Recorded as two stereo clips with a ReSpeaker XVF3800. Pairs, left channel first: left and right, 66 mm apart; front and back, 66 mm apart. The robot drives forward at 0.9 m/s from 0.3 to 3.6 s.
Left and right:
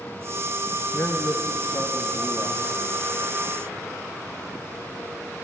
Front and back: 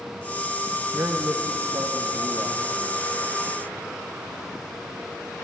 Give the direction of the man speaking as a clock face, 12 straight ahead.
8 o'clock.